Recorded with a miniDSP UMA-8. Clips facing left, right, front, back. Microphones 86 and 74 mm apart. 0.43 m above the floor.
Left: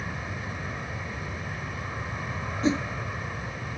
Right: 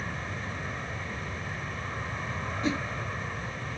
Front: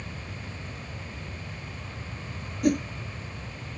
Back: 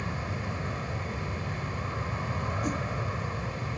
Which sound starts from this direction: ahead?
A whoosh, at 2.6 s.